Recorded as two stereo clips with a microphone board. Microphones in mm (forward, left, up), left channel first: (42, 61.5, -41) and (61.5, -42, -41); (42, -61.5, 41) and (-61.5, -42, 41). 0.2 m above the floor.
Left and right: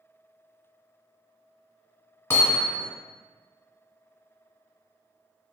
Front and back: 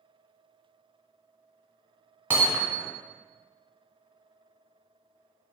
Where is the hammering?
125° left, 1.3 m.